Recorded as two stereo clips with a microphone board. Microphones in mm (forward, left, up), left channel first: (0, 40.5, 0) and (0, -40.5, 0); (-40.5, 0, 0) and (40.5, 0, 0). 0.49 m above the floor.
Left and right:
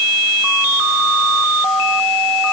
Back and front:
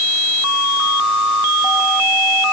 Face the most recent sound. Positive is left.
No sound to turn to.